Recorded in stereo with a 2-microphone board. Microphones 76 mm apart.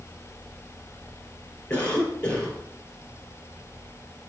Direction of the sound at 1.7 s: 20° left (ahead or behind).